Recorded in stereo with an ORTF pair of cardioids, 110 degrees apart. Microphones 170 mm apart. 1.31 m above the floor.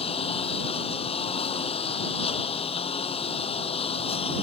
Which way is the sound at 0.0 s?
35° left.